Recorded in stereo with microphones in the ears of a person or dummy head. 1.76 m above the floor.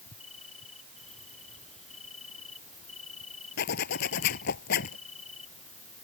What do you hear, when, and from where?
0.0 s an insect: 40° left (ahead or behind)
3.6 s a zipper: 60° left (ahead or behind)